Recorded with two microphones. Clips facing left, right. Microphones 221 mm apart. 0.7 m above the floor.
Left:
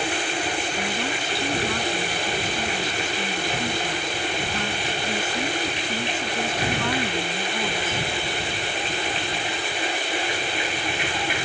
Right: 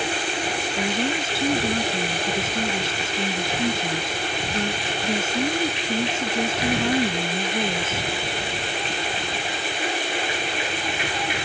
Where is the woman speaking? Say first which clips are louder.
Right 4 dB; 25° right (ahead or behind).